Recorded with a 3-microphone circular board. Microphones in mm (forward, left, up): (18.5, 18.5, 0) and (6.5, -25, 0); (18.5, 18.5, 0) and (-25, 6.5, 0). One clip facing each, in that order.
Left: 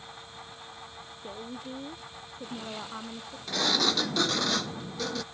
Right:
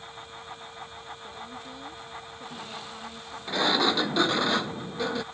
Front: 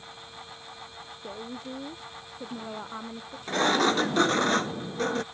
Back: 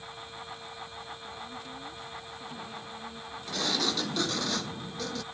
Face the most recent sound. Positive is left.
turn(degrees=-35)